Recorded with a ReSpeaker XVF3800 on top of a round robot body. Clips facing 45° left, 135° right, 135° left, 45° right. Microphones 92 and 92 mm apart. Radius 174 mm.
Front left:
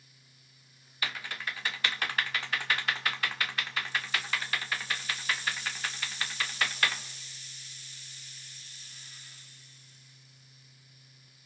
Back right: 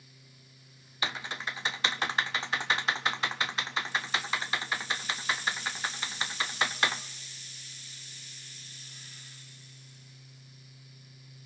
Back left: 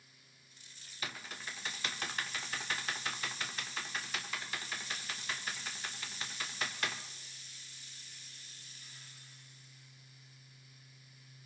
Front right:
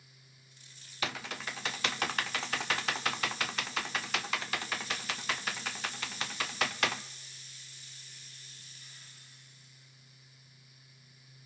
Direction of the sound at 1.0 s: 65° right.